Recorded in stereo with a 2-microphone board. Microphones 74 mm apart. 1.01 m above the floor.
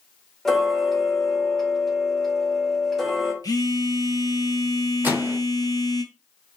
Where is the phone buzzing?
55° left (ahead or behind), 0.6 m.